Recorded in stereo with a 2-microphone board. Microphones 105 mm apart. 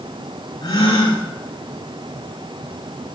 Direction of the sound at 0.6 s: 60° left (ahead or behind).